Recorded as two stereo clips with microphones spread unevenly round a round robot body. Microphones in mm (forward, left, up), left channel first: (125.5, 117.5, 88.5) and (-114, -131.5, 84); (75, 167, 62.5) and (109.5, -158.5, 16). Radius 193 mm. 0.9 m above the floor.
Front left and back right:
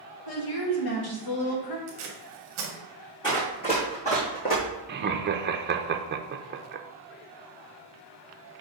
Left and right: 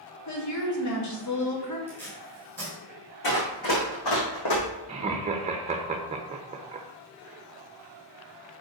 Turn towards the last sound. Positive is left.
turn(degrees=-115)